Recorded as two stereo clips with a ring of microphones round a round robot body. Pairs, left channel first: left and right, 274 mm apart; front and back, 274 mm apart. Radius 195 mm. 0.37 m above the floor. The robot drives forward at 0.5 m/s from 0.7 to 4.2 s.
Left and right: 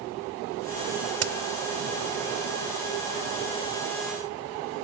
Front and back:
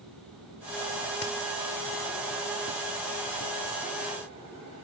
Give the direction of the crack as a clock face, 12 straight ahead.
2 o'clock.